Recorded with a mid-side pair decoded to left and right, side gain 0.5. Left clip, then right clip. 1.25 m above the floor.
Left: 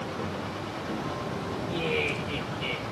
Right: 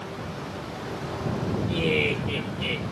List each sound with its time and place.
1.7 s laughter: 60° right, 5 m